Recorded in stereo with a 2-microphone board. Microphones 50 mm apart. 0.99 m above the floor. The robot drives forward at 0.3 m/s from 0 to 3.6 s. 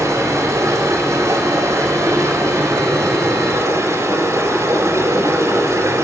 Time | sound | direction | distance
0.0 | running water | 85° right | 4 m